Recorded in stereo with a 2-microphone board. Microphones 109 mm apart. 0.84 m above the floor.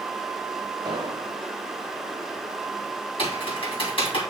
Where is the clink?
I don't hear a clink.